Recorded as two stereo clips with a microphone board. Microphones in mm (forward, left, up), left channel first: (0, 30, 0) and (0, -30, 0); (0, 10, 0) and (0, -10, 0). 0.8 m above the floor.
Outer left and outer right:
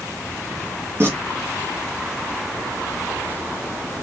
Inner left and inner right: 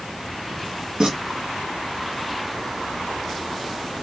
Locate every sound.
1.0 s tearing paper: 45° right (ahead or behind), 3.5 m